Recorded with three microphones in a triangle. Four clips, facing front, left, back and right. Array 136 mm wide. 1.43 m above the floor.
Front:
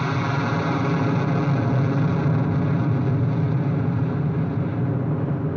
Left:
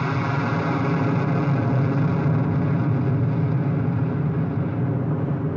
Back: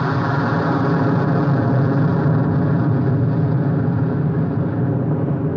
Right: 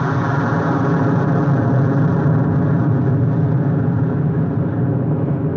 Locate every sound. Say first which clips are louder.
0.0 s an aircraft: right 5 dB, back 5 dB; 125° right